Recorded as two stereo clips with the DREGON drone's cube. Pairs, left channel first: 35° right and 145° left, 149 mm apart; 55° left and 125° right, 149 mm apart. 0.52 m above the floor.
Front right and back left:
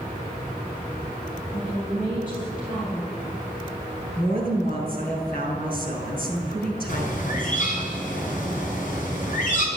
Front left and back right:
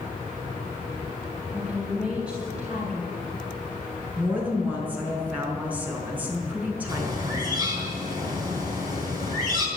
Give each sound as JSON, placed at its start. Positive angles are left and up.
{"t": 1.5, "sound": "a woman speaking", "azimuth_deg": -45, "distance_m": 3.0}
{"t": 4.2, "sound": "a woman speaking", "azimuth_deg": -45, "distance_m": 5.0}
{"t": 6.9, "sound": "a bird", "azimuth_deg": -60, "distance_m": 4.0}